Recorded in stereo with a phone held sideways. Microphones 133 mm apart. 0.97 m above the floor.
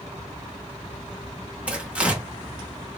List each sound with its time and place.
1.7 s tearing paper: 10° right (ahead or behind), 0.7 m